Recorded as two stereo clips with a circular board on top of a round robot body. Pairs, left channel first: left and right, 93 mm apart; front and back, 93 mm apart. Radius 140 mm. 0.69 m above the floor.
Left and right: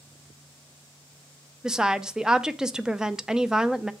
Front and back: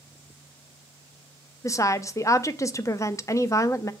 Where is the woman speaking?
10° right, 0.6 m.